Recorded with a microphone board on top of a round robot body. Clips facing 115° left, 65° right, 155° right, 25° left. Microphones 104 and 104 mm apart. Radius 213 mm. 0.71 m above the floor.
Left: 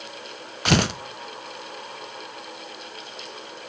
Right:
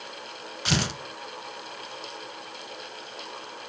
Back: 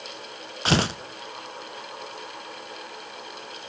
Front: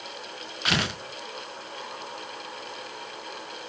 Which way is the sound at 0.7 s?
145° left.